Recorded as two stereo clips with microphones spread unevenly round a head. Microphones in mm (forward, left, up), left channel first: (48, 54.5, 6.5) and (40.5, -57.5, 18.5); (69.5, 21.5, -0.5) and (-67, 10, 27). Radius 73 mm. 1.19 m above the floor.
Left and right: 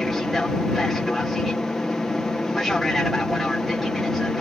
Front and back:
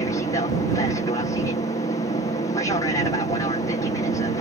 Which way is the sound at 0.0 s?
5° left.